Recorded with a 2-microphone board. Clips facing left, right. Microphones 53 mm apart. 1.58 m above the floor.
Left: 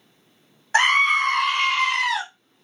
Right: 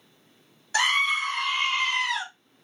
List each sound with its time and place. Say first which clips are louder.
0.7 s a scream: left 6 dB; 35° left (ahead or behind), 0.7 m; by 2.2 s 80° left, 1.1 m